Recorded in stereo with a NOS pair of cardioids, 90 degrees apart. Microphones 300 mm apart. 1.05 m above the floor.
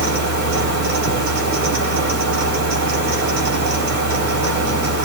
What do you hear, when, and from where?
0.0 s a fan: 65° right, 3.5 m